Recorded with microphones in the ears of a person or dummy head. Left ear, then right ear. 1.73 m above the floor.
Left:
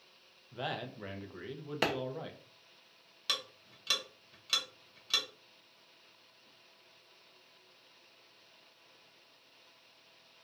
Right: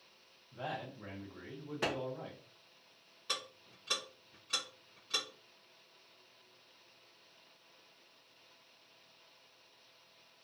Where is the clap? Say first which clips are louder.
Left 4 dB; 35° left (ahead or behind), 0.7 m.